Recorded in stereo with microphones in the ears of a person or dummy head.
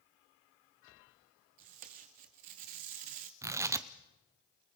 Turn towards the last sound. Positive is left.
turn(degrees=-15)  # may be behind; listen again after turning